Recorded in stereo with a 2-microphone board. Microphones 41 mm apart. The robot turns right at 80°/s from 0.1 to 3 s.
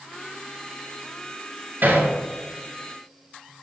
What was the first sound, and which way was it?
Hammering, 60° right (ahead or behind).